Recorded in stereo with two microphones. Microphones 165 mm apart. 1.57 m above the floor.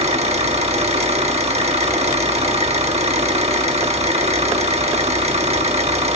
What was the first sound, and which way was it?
An engine running, 40° right (ahead or behind).